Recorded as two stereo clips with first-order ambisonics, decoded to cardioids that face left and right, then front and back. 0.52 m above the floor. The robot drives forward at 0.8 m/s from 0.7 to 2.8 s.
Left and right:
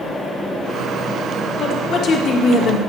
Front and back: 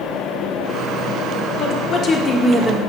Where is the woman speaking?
35° left, 1.2 m; by 2.8 s 105° left, 1.0 m.